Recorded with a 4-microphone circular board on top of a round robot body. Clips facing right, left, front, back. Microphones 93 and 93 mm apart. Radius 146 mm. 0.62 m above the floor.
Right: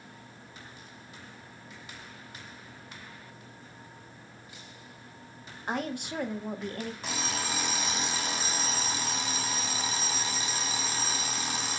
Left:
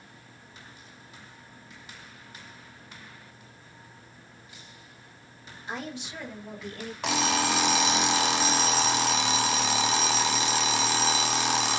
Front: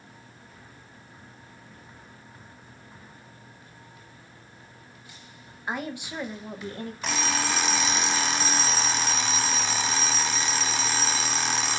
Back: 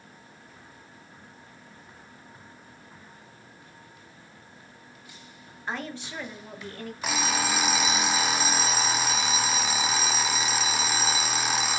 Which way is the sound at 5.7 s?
75° right.